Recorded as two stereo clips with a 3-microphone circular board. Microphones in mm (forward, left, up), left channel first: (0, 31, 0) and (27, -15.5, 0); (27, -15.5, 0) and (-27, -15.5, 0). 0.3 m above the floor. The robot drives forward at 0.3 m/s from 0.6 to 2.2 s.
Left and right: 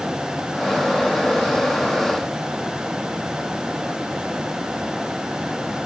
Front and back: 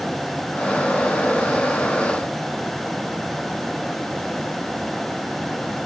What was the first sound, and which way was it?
Only background noise.